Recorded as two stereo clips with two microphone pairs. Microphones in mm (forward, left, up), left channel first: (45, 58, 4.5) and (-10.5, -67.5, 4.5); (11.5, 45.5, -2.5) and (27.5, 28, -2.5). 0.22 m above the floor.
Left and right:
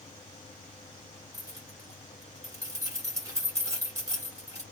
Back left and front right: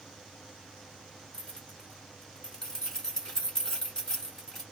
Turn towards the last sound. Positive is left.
turn(degrees=-175)